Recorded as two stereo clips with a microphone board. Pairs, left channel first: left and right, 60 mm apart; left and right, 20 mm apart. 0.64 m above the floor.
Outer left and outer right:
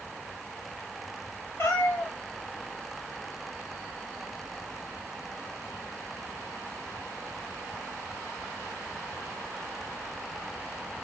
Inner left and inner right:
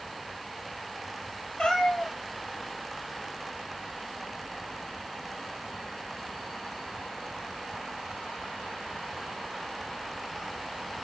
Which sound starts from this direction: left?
A cat meowing, at 1.6 s.